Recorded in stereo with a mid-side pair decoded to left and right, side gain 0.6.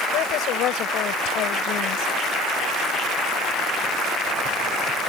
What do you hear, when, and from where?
0.1 s a woman speaking: 65° left